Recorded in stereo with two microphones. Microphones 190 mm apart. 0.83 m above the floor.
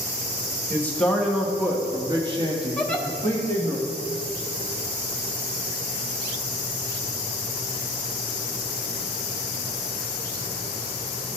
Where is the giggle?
5° left (ahead or behind), 0.8 m.